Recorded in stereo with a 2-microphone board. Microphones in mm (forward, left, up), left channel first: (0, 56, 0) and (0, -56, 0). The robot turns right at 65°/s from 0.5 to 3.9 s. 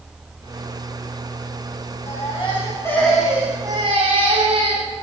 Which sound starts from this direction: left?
A baby crying, at 2.1 s.